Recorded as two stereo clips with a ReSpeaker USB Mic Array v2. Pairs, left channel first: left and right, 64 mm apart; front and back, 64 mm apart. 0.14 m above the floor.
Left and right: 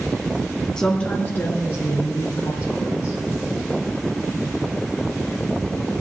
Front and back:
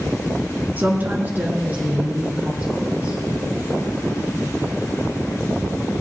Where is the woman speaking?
165° left, 1.4 m; by 3.2 s 120° left, 3.5 m.